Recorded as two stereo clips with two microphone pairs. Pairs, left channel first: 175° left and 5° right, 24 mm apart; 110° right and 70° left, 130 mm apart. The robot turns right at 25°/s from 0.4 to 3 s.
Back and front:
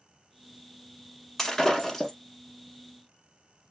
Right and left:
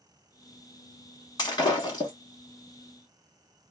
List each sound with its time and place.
1.4 s breaking glass: 130° right, 1.0 m; by 2.1 s 110° right, 1.0 m